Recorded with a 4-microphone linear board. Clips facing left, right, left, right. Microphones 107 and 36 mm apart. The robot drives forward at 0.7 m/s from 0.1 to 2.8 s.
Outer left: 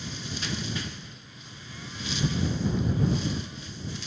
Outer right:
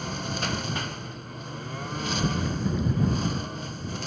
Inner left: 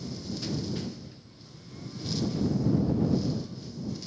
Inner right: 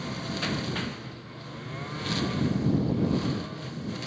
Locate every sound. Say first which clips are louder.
0.0 s a lawn mower: outer right 6 dB, inner right 5 dB; 55° right (ahead or behind); by 4.1 s 50° right (ahead or behind)